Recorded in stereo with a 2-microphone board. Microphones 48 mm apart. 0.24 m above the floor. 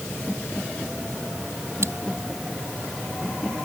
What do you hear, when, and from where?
1.8 s scissors: 60° right (ahead or behind)